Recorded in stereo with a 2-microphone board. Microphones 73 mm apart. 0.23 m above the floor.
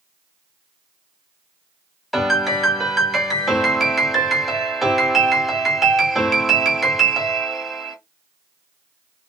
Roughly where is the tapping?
I don't hear tapping.